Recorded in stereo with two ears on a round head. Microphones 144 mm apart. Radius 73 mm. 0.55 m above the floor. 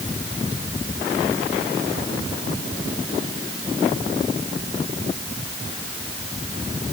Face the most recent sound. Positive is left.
No sound to turn to.